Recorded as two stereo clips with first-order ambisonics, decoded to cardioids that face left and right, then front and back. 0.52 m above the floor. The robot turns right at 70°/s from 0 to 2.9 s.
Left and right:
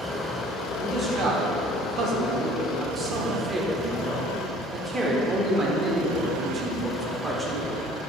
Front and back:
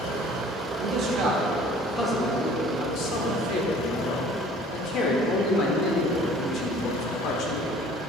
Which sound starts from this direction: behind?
A man speaking, at 0.8 s.